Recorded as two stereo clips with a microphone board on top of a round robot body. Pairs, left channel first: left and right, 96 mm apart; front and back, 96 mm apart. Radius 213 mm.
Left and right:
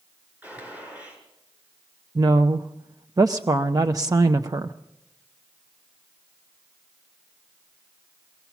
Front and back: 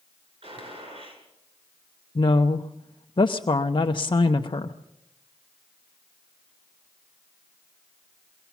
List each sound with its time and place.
0.4 s a gunshot: 165° right, 7.5 m
2.1 s a woman speaking: 40° right, 0.7 m